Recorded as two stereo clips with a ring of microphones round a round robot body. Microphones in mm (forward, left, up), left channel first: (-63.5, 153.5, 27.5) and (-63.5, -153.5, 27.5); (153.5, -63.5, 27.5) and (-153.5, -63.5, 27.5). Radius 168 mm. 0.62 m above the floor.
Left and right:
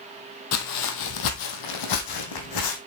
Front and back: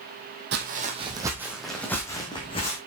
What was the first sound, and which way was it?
Footsteps, 120° left.